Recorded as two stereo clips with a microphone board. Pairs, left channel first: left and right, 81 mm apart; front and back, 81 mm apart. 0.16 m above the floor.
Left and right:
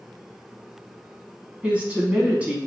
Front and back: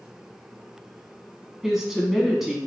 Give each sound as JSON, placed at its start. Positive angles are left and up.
{"t": 1.6, "sound": "a woman speaking", "azimuth_deg": -105, "distance_m": 1.0}